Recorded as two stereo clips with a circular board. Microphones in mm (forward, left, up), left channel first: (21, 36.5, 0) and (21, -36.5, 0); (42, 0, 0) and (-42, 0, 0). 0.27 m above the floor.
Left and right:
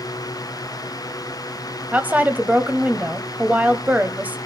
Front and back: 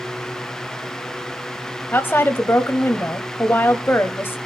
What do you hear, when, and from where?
1.9 s a woman speaking: 40° right, 1.0 m